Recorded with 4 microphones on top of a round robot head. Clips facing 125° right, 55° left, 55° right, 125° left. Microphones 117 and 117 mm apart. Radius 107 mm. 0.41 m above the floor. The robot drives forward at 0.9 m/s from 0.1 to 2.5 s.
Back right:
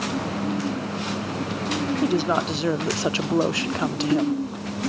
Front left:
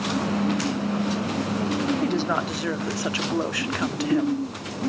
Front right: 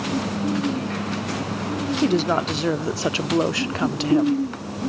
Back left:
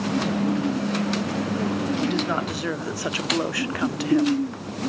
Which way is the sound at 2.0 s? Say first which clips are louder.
Back right 2 dB, front right 4 dB; 45° right.